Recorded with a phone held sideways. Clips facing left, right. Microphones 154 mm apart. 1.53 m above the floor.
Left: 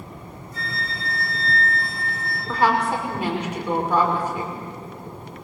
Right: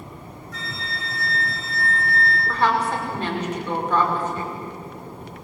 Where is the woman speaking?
10° left (ahead or behind), 6 m.